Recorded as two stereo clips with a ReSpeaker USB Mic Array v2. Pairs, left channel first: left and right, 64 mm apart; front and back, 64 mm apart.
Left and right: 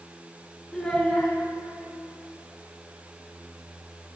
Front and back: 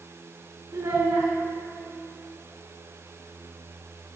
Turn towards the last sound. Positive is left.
turn(degrees=165)